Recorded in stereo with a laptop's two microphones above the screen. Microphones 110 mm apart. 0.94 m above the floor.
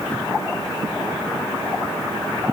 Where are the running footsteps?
I don't hear running footsteps.